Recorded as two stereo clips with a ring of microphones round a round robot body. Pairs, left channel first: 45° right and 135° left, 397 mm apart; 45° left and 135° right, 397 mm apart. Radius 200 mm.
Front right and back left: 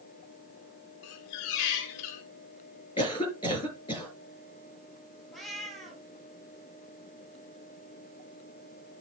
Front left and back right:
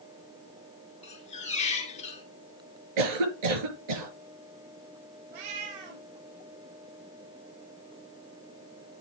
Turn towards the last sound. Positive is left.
turn(degrees=-135)